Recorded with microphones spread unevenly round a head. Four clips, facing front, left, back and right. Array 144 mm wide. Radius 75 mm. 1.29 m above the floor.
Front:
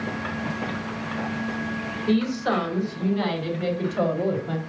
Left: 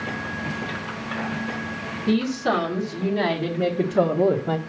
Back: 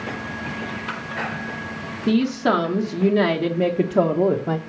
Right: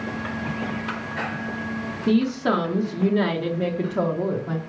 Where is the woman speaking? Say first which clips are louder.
Right 1 dB, back 4 dB; 155° right, 1.6 m; by 4.6 s 145° left, 1.0 m.